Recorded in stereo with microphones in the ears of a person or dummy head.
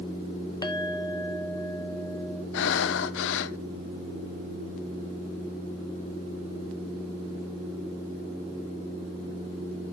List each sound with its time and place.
0.6 s a clink: 20° left (ahead or behind), 0.8 m
2.5 s breathing: 70° left (ahead or behind), 0.7 m